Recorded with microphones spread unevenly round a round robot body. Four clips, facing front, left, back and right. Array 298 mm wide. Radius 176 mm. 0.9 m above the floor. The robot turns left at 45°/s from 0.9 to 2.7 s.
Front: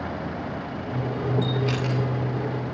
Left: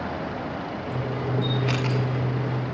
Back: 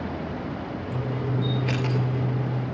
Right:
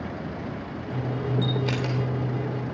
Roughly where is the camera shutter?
Right.